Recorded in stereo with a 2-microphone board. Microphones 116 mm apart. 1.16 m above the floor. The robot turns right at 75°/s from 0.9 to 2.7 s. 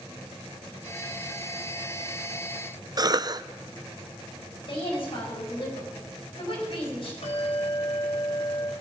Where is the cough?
35° right (ahead or behind), 0.5 m.